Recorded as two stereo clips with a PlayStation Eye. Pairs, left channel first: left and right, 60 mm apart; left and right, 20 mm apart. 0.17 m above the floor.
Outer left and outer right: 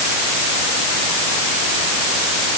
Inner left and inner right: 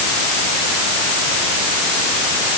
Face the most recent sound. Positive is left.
No sound to turn to.